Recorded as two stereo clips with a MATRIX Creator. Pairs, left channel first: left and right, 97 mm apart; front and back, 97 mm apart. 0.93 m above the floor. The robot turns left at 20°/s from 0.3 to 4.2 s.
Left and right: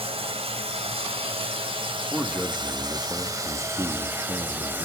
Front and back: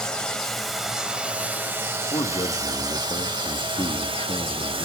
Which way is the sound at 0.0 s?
85° right.